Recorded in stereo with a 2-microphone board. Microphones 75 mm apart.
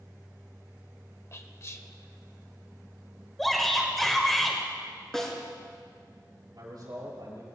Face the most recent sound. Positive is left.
turn(degrees=-65)  # may be behind; listen again after turning